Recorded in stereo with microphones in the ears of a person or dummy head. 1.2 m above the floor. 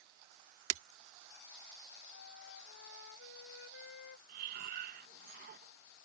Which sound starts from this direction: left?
A flute, at 2.1 s.